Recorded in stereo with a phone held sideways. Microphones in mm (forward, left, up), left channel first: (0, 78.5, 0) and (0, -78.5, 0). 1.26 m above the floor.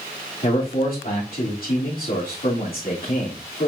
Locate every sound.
0.4 s a man speaking: 65° left (ahead or behind), 3 m